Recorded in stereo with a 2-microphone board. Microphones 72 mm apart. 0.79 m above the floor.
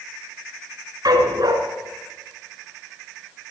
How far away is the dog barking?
About 3 m.